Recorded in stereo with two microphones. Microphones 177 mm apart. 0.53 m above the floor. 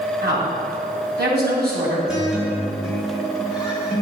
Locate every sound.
0.2 s a woman speaking: 65° right (ahead or behind), 3 m
2.1 s a guitar: 5° right (ahead or behind), 3 m